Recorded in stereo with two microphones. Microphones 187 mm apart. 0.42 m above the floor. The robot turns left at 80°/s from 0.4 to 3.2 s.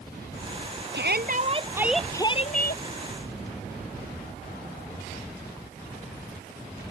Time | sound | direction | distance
0.9 | a shout | 100° right | ?